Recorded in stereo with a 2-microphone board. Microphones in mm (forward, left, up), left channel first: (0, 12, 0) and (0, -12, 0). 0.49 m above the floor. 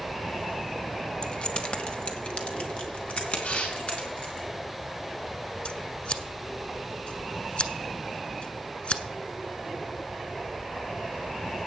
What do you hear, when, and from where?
1.2 s keys jangling: 40° left (ahead or behind), 1.0 m; by 4.4 s 55° left (ahead or behind), 4.5 m
3.4 s tearing paper: 75° left (ahead or behind), 7 m
5.7 s scissors: 50° left (ahead or behind), 1.1 m